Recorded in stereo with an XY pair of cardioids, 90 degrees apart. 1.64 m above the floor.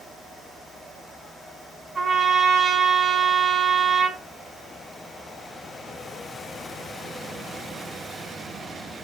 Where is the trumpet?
40° right, 7.5 m.